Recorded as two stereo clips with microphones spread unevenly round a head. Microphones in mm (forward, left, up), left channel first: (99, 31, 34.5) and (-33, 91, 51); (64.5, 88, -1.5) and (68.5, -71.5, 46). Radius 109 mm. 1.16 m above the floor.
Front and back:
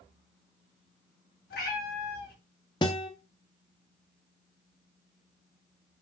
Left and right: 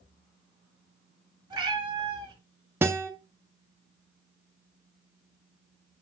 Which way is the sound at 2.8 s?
75° right.